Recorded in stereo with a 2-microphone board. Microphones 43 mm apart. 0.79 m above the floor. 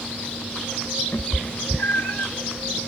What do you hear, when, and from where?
1.1 s a cat meowing: 65° left (ahead or behind), 1.1 m; by 2.3 s 55° left (ahead or behind), 0.9 m